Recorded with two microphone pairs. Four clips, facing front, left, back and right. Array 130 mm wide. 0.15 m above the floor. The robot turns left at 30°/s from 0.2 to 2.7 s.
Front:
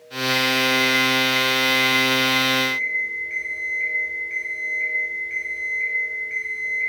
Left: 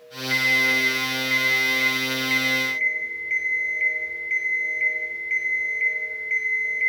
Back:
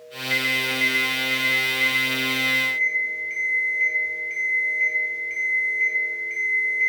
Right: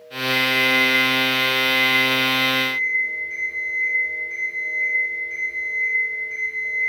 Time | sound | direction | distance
0.3 | an alarm clock | 145° left | 1.9 m